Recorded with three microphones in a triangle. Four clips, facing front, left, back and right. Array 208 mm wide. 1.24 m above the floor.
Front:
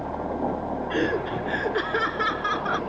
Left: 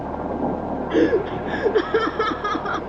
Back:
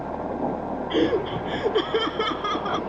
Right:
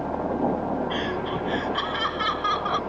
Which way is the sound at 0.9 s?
110° left.